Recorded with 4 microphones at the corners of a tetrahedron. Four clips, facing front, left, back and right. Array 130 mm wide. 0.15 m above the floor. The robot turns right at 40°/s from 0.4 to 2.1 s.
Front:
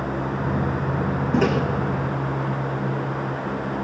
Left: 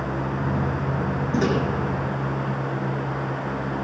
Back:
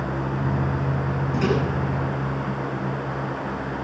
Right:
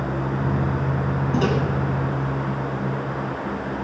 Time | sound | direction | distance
1.3 | a microwave | 5° right | 3 m